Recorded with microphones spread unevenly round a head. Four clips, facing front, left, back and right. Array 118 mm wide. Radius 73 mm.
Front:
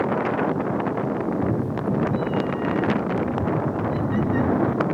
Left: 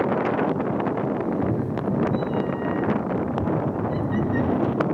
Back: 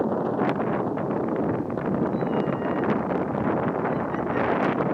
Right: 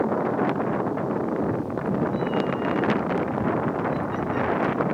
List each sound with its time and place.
1.2 s a cat meowing: 55° left; by 4.8 s 40° left